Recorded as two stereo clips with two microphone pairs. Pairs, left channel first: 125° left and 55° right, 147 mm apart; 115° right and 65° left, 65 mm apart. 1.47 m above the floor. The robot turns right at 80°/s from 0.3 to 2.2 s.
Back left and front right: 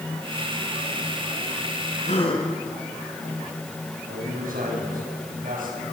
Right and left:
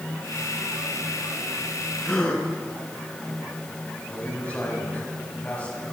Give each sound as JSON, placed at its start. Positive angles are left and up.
{"t": 2.0, "sound": "a gasp", "azimuth_deg": 160, "distance_m": 4.0}
{"t": 4.1, "sound": "a man speaking", "azimuth_deg": -45, "distance_m": 9.0}